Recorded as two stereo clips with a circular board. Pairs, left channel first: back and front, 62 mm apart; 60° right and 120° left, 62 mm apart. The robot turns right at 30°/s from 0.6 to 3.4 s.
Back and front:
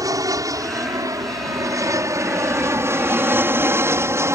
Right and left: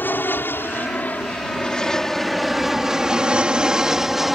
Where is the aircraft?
5° right; by 4.4 s 30° left.